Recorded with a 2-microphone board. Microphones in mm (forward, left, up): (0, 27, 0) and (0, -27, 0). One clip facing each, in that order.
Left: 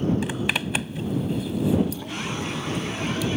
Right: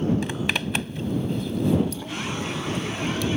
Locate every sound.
0.2 s a zipper: 5° left (ahead or behind)